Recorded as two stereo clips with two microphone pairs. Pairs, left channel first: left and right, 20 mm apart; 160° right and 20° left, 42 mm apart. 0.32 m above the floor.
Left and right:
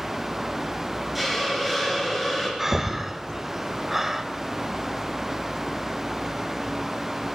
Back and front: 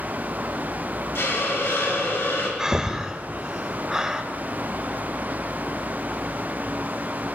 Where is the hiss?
175° right, 5 m.